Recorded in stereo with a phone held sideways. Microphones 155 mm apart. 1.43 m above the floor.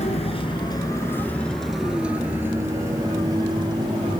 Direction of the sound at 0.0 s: 45° left (ahead or behind).